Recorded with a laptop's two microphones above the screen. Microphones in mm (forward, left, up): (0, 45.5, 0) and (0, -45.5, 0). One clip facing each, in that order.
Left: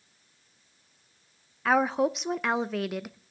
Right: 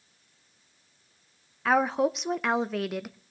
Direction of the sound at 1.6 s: Centre (ahead or behind).